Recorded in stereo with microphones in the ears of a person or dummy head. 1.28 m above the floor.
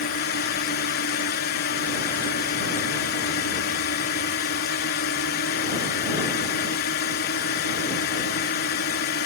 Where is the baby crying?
No baby crying in this recording.